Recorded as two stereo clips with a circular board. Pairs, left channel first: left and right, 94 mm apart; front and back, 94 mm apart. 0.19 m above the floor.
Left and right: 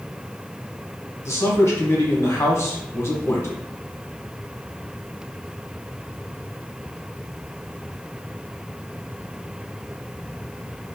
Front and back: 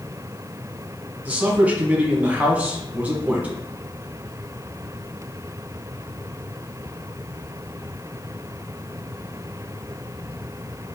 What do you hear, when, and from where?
1.2 s a man speaking: 120° left, 1.2 m